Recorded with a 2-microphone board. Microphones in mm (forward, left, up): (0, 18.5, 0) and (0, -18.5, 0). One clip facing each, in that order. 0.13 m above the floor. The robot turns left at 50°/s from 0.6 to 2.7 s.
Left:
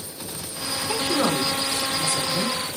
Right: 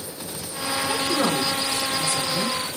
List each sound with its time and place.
0.9 s a woman speaking: 5° left (ahead or behind), 1.1 m; by 2.6 s 20° left (ahead or behind), 1.1 m